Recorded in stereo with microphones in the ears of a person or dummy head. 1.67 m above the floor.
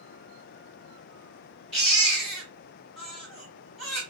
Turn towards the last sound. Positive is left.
turn(degrees=0)  # may be behind; listen again after turning